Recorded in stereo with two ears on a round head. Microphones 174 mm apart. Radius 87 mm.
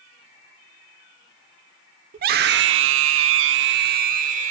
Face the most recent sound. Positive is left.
turn(degrees=-40)  # may be behind; listen again after turning